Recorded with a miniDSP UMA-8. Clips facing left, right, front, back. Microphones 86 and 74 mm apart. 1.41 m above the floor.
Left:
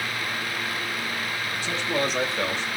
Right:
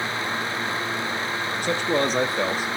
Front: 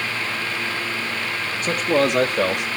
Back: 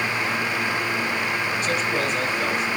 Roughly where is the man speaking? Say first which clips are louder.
Right 4 dB, front 9 dB; ahead right.